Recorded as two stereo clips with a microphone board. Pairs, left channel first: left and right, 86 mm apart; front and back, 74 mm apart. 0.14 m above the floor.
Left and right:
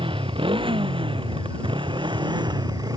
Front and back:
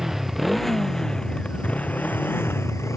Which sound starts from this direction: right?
A motorcycle, at 0.0 s.